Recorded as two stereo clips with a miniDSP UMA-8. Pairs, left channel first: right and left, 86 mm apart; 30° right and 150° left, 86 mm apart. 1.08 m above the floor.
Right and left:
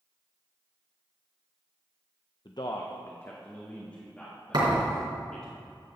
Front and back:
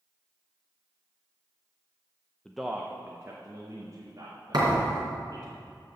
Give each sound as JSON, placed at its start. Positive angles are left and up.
{"t": 2.5, "sound": "a man speaking", "azimuth_deg": -110, "distance_m": 0.5}
{"t": 4.5, "sound": "a thud", "azimuth_deg": 120, "distance_m": 3.5}